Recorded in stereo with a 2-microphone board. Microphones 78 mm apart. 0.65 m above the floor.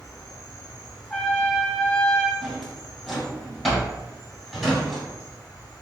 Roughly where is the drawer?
Centre.